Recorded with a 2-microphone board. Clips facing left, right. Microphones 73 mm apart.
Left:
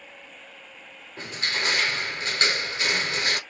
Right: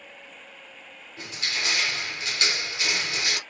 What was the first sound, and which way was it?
Crushing, 40° left (ahead or behind).